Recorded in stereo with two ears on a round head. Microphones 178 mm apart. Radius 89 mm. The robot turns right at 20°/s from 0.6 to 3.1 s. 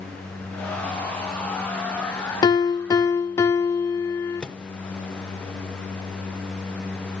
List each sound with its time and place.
2.4 s a piano: 20° left (ahead or behind), 0.6 m; by 4.4 s 15° left (ahead or behind), 0.6 m
4.4 s a microwave: 5° left (ahead or behind), 0.6 m